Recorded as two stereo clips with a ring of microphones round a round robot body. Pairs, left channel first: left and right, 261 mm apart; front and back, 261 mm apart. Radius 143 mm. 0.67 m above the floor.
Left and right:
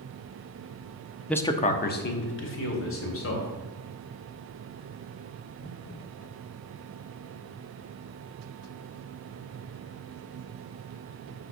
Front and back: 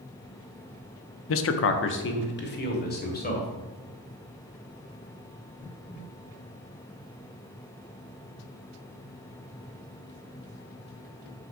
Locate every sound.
1.3 s a man speaking: 5° left, 0.7 m; by 3.5 s 55° left, 2.5 m